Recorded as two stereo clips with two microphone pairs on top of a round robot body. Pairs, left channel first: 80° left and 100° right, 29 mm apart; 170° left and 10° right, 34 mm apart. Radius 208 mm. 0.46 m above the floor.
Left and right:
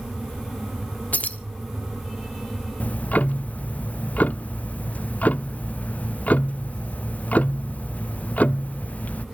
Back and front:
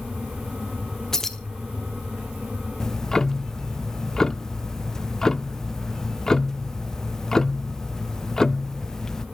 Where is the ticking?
100° left, 0.6 m.